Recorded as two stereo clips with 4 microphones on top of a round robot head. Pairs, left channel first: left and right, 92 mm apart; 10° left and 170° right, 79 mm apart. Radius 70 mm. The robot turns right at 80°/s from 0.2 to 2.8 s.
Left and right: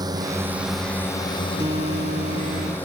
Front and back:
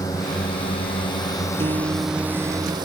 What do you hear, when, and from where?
0.0 s a drone: 45° right; by 2.9 s 165° left
1.6 s a guitar: 150° right; by 2.8 s 55° right